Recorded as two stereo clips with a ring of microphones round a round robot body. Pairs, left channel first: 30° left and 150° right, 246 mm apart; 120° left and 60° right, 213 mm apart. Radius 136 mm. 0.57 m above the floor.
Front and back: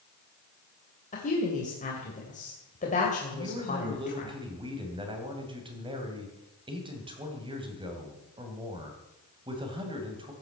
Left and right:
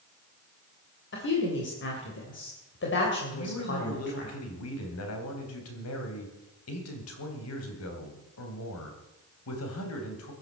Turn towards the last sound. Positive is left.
turn(degrees=140)